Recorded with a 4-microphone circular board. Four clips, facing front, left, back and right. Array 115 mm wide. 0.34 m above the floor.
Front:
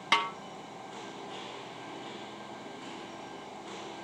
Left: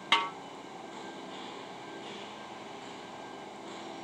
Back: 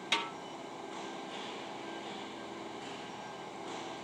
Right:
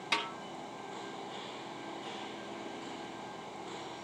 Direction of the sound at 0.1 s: 30° left.